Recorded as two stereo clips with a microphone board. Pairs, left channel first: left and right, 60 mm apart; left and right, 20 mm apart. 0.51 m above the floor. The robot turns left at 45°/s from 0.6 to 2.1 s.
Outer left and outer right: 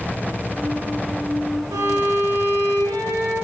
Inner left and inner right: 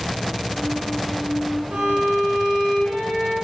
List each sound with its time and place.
1.7 s a violin: 55° right (ahead or behind), 2.5 m; by 3.4 s 40° right (ahead or behind), 2.5 m